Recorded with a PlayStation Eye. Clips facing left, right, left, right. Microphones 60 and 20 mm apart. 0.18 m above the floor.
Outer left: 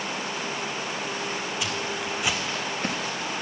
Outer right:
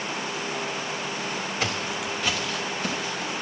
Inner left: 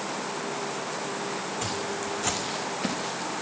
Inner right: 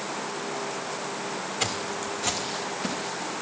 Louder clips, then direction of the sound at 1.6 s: Outer right 1 dB, inner right 1 dB; 40° right (ahead or behind).